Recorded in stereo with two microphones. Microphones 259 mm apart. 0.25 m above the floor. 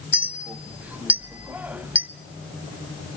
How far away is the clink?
About 0.7 m.